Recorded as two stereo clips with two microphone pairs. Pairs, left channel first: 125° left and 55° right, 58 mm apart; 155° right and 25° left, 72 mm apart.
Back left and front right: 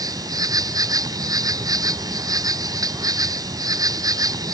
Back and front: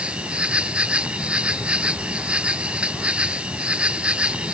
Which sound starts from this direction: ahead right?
An insect, at 0.0 s.